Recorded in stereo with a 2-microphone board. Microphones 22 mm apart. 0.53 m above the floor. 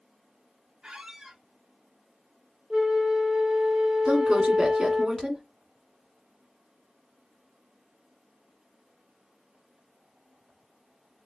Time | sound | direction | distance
0.8 | a squeak | 40° right (ahead or behind) | 0.9 m
2.7 | a flute | 20° right (ahead or behind) | 0.7 m
4.0 | a woman speaking | 35° right (ahead or behind) | 1.4 m